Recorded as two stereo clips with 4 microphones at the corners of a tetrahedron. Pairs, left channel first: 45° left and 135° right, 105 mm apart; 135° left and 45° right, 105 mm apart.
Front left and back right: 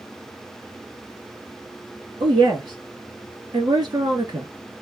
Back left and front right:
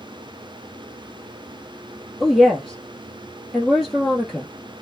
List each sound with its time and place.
2.2 s a woman speaking: 135° right, 2 m